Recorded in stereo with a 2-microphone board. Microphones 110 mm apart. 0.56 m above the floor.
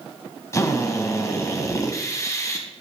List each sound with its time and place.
0.5 s a drill: 25° left (ahead or behind), 1.9 m